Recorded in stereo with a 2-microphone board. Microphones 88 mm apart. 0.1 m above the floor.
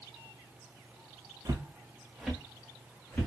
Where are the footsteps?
45° right (ahead or behind), 0.5 m; by 3.3 s 15° left (ahead or behind), 1.4 m.